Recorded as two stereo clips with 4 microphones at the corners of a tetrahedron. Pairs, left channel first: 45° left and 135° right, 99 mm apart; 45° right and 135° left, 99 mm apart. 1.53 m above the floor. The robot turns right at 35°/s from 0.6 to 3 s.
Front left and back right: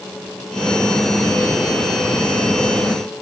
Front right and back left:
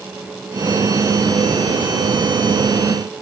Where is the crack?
I don't hear a crack.